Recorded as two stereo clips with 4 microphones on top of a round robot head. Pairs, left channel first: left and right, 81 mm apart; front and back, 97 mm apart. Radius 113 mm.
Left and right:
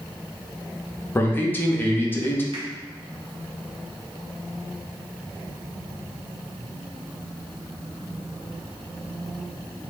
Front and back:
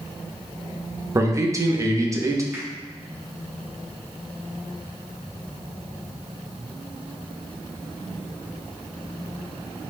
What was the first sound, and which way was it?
A man speaking, 140° left.